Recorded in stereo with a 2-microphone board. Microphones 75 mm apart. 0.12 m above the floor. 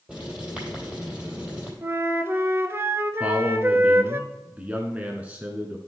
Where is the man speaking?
20° right (ahead or behind), 1.1 m.